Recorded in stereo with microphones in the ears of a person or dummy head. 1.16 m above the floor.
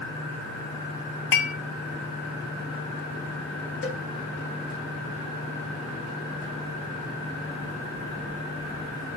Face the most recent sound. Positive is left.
turn(degrees=60)  # may be behind; listen again after turning